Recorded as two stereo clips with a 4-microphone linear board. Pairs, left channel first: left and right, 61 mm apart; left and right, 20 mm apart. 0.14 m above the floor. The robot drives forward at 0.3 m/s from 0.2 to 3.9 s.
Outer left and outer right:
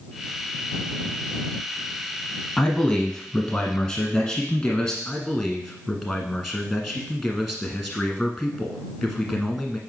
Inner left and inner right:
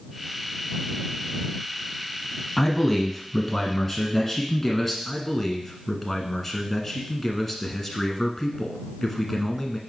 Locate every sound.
2.6 s a man speaking: 15° left (ahead or behind), 1.1 m; by 5.0 s 10° left (ahead or behind), 1.2 m
5.0 s a man speaking: 5° left (ahead or behind), 1.3 m